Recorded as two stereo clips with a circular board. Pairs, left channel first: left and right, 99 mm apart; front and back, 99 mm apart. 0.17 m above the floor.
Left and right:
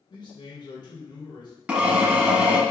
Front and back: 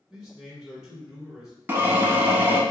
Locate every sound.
0.1 s a man speaking: 100° left, 1.7 m
1.7 s a drill: 150° right, 0.7 m